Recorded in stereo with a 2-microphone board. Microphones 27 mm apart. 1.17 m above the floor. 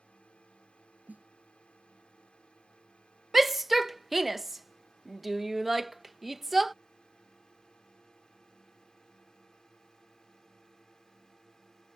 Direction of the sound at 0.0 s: 45° left (ahead or behind).